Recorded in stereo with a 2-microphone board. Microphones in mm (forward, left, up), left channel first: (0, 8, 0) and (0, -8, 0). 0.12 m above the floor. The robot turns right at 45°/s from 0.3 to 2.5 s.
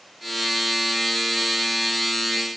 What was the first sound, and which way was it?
Only background noise.